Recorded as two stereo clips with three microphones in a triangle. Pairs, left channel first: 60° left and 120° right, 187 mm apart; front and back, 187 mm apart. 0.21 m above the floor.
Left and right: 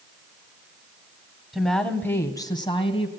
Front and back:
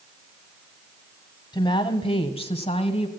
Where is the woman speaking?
35° right, 1.4 m; by 3.1 s 30° left, 1.5 m.